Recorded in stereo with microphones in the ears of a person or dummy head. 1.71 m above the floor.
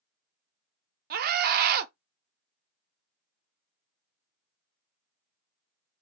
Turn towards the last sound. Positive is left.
turn(degrees=-50)  # may be behind; listen again after turning